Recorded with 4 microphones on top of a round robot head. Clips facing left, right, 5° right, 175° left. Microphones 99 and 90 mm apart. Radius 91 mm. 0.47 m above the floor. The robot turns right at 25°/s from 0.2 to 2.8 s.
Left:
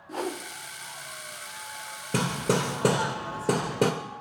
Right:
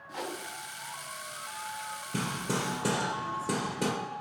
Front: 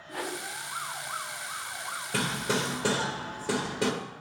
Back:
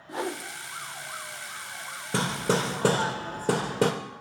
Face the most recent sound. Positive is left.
turn(degrees=125)